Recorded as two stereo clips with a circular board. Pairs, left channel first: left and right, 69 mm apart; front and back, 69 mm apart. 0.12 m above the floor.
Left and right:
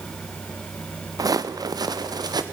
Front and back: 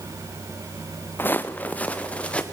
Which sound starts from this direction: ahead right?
Footsteps, at 1.2 s.